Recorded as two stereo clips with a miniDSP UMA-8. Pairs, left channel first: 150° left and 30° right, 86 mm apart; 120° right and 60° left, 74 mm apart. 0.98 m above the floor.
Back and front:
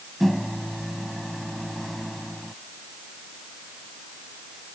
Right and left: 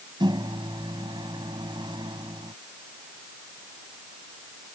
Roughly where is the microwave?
Ahead left.